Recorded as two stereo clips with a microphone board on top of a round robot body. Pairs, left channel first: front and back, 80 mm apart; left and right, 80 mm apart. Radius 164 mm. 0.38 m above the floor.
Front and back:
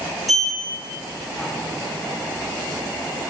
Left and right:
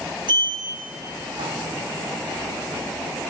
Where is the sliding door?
90° right, 2.5 m.